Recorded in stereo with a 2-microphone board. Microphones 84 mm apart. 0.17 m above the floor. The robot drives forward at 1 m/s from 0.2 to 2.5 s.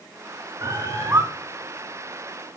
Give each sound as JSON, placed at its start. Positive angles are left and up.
{"t": 0.6, "sound": "a bird", "side_deg": -30, "distance_m": 1.6}